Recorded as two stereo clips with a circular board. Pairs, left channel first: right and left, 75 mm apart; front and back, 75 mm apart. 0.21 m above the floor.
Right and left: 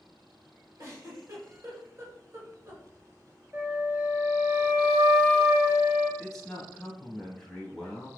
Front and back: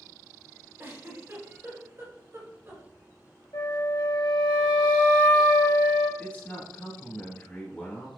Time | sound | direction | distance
0.8 | a giggle | 130° left | 1.4 m
3.5 | a flute | 25° left | 1.8 m
6.2 | a man speaking | 20° right | 1.1 m